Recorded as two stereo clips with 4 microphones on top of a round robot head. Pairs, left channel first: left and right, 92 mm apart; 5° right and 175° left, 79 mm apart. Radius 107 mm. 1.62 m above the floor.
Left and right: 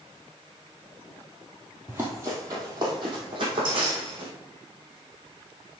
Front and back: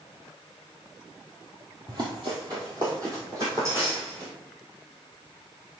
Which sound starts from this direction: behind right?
Running footsteps, at 1.9 s.